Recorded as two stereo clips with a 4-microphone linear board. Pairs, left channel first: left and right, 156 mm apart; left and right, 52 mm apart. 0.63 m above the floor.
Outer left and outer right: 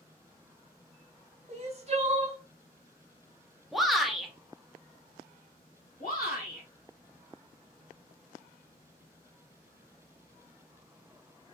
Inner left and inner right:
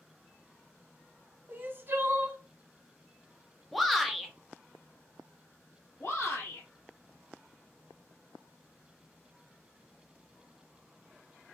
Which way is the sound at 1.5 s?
40° right (ahead or behind).